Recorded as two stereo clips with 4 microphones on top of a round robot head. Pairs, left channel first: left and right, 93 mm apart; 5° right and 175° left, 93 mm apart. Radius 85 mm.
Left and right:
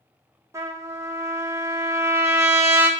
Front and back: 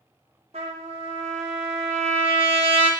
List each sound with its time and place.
0.5 s a trumpet: 145° right, 1.1 m